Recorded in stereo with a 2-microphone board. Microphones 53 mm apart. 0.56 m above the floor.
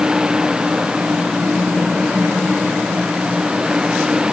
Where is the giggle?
No giggle in this recording.